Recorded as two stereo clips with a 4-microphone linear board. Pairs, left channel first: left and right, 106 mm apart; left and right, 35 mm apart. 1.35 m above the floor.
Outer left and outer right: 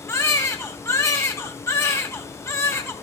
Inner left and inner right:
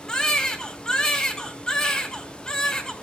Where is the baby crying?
25° left (ahead or behind), 2 m.